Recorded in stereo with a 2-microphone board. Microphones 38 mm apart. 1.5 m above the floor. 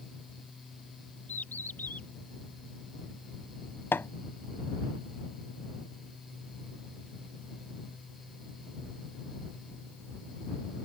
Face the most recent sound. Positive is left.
turn(degrees=75)  # may be behind; listen again after turning